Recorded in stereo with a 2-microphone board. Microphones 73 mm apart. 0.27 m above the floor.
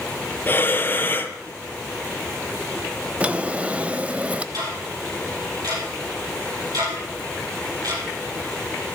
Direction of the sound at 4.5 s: 60° right (ahead or behind).